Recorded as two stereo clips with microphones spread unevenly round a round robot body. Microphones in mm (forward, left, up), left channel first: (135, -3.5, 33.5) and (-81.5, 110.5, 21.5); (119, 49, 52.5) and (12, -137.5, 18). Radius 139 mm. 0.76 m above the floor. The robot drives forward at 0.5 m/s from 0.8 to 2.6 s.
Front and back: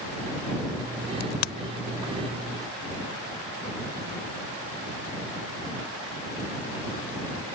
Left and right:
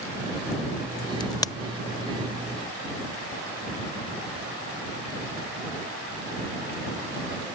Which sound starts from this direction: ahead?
A crack, at 1.2 s.